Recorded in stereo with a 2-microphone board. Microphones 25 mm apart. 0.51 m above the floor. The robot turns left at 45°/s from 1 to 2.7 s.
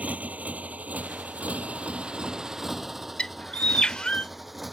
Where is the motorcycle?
75° right (ahead or behind); by 4.7 s 5° right (ahead or behind).